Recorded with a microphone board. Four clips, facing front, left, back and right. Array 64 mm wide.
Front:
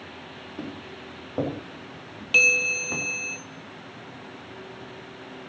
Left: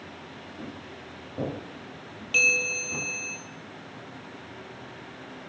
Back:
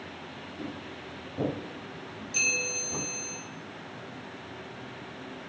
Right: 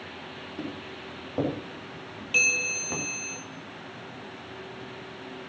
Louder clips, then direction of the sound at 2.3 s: Left 2 dB, front 10 dB; straight ahead.